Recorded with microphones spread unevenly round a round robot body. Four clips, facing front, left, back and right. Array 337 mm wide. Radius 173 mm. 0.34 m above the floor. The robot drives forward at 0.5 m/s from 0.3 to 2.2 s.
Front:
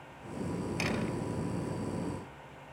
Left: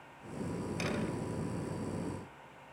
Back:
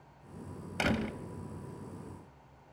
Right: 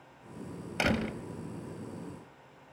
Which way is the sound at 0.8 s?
105° right.